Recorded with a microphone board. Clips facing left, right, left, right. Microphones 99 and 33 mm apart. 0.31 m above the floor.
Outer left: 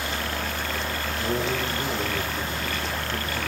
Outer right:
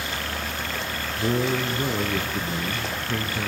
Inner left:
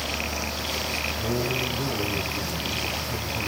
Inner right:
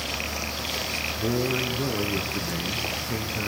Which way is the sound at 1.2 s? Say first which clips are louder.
Outer right 4 dB, inner right 3 dB; 70° right (ahead or behind).